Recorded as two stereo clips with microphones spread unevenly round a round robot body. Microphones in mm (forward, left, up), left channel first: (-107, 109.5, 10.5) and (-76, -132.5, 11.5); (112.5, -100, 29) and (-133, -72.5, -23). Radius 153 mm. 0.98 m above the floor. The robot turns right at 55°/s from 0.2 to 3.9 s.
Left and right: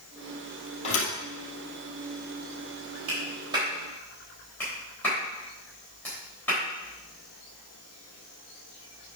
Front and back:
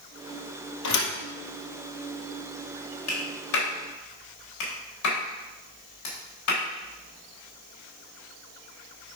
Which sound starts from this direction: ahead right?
A clap, at 3.1 s.